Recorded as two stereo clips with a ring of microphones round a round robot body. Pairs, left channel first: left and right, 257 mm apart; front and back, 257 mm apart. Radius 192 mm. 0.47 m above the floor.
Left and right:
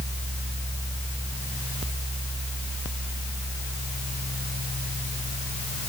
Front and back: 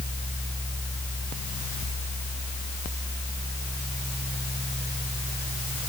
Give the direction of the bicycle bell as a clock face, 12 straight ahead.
No bicycle bell in this recording.